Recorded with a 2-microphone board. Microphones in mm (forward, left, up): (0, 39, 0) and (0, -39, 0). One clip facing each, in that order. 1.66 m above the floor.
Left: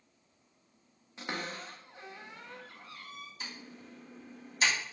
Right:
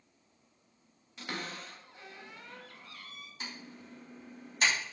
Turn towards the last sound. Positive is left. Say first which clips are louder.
# right 1 dB
turn(degrees=-50)  # may be behind; listen again after turning